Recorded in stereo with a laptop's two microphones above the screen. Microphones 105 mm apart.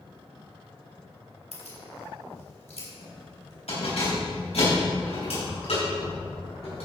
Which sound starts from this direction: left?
Keys jangling, at 1.5 s.